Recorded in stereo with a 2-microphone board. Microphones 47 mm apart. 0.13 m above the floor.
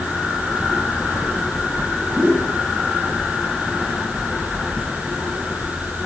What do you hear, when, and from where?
2.1 s a whoosh: 30° right (ahead or behind), 7.5 m